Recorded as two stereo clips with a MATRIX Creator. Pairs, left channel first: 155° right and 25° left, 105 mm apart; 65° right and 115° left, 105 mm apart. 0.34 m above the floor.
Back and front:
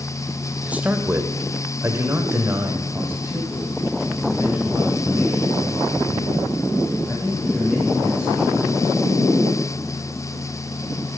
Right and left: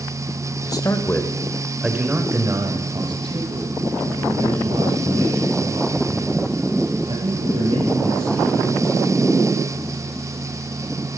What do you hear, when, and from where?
0.7 s a man speaking: 50° right, 1.8 m; by 9.1 s 100° left, 9 m